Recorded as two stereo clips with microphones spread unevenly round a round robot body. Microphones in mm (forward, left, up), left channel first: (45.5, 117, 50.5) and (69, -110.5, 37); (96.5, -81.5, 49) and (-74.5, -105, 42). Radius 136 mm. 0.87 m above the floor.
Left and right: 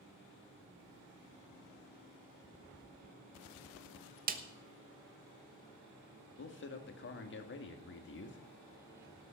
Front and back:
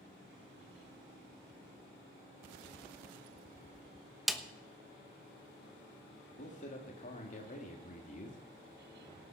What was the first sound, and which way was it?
A snare drum, 85° right.